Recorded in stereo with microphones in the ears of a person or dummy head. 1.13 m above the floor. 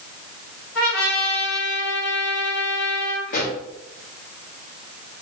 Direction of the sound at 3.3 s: 45° left (ahead or behind).